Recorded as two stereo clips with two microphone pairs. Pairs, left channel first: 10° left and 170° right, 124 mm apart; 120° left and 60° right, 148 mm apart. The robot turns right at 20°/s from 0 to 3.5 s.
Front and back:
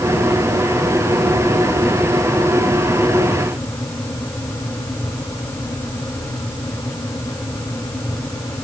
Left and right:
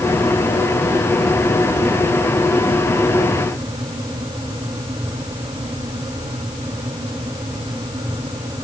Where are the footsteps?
No footsteps in this recording.